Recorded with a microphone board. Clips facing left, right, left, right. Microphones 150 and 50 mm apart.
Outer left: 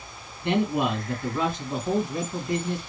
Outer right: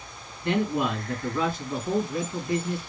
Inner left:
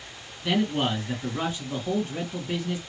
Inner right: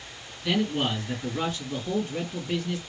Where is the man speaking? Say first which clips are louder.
Outer left 1 dB, inner left 1 dB; 20° left (ahead or behind), 2.5 m.